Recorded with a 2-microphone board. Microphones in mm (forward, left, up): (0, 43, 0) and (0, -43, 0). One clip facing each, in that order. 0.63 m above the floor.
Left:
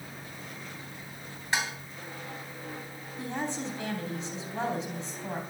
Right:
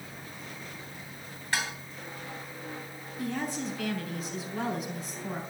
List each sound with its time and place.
1.5 s dishes clattering: 20° left (ahead or behind), 3 m
3.2 s a woman speaking: 25° left (ahead or behind), 3.5 m